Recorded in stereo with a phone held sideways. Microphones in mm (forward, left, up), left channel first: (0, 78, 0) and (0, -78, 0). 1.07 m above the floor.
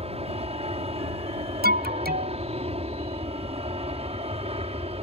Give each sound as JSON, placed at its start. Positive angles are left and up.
{"t": 0.0, "sound": "an aircraft", "side_deg": -40}
{"t": 1.6, "sound": "an alarm", "side_deg": -85}